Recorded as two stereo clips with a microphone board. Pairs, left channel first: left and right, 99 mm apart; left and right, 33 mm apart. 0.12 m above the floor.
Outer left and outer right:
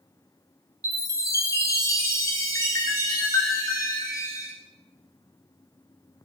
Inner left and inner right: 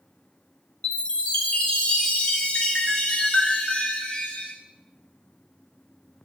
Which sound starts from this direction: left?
A chime, at 0.8 s.